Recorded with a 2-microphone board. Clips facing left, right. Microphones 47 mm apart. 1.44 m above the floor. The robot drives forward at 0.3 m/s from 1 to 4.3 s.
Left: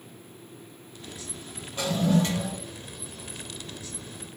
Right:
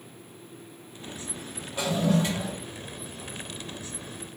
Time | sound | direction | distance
1.8 | a toilet flushing | 10° right (ahead or behind) | 0.6 m